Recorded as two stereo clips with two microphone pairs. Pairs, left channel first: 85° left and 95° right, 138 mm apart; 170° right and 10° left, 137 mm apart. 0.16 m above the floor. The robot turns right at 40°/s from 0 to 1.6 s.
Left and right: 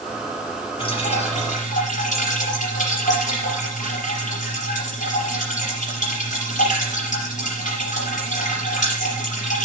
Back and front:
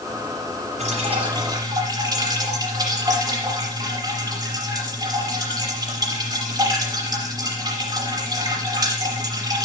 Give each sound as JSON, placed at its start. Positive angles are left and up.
{"t": 0.8, "sound": "dripping", "azimuth_deg": 35, "distance_m": 4.5}